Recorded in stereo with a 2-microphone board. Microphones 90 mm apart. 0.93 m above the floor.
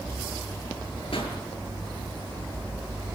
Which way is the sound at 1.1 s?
70° left (ahead or behind).